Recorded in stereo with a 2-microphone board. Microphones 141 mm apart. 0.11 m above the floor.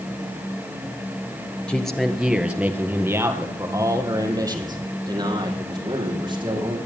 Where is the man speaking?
5° left (ahead or behind), 1.7 m; by 6.8 s 35° right (ahead or behind), 5.5 m.